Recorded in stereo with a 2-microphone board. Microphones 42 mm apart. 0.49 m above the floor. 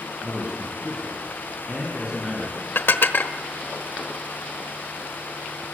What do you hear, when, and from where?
0.2 s a man speaking: 15° right (ahead or behind), 6 m
2.8 s dishes clattering: 60° left (ahead or behind), 1.3 m